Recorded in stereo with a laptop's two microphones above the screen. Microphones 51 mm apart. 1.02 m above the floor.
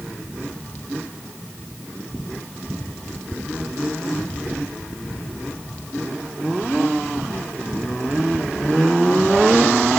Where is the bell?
I don't hear a bell.